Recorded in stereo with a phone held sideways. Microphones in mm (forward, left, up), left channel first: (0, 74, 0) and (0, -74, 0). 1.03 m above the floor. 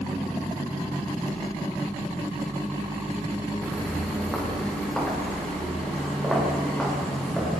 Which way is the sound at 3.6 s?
5° left (ahead or behind).